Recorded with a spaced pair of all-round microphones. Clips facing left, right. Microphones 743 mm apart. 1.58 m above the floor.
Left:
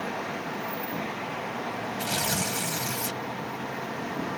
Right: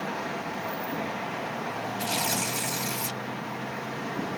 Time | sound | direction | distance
2.0 | tearing paper | 50° left (ahead or behind) | ?